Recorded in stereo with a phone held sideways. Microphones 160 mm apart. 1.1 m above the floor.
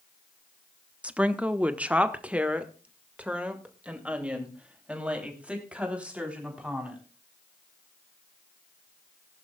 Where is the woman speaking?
5° right (ahead or behind), 0.7 m.